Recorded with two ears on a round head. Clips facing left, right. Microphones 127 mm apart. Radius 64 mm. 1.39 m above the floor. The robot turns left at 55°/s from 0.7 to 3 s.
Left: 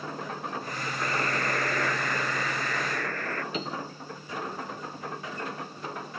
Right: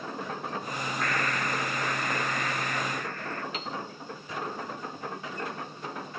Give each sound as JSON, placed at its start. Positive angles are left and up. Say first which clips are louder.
{"t": 1.0, "sound": "a buzzer", "louder": "left 2 dB", "azimuth_deg": 165}
{"t": 3.5, "sound": "a piano", "louder": "left 3 dB", "side_deg": 85}